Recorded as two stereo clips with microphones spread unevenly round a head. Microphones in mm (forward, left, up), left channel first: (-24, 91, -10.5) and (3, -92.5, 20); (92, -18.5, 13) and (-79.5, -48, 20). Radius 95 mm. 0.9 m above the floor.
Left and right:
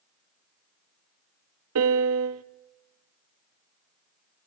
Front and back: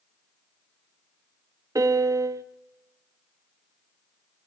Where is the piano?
95° right, 1.0 m.